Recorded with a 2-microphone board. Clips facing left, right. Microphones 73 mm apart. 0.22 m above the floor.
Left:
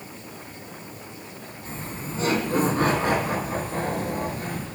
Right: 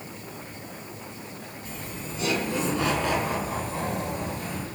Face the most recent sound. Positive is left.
turn(degrees=45)  # may be behind; listen again after turning